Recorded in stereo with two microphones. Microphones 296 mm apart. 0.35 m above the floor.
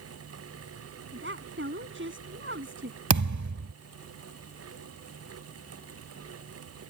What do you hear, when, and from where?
1.1 s a woman speaking: 40° right (ahead or behind)
3.1 s a thud: 75° right (ahead or behind)